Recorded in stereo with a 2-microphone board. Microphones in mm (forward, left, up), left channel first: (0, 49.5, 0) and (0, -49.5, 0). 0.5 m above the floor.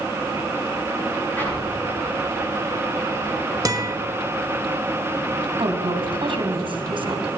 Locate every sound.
1.4 s an explosion: 20° left (ahead or behind), 6.5 m
3.6 s a guitar: 40° right (ahead or behind), 1.0 m
5.6 s a woman speaking: 60° right (ahead or behind), 1.8 m